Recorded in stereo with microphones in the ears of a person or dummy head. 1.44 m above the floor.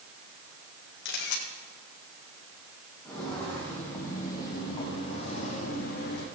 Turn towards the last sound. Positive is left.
turn(degrees=50)  # may be behind; listen again after turning